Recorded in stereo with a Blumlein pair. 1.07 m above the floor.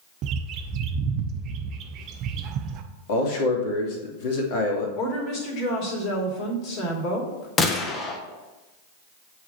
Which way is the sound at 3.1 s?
50° left.